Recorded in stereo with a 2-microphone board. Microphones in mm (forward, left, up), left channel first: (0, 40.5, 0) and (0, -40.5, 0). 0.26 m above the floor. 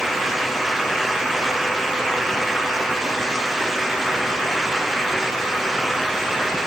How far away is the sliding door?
No sliding door in this recording.